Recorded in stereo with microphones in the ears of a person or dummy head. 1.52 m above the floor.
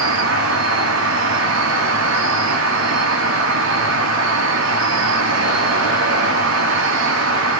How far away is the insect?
About 0.8 m.